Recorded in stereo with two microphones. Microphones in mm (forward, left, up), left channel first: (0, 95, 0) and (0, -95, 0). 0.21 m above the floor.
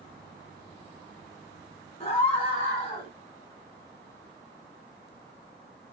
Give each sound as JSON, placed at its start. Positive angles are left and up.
{"t": 2.0, "sound": "a scream", "side_deg": 35, "distance_m": 1.9}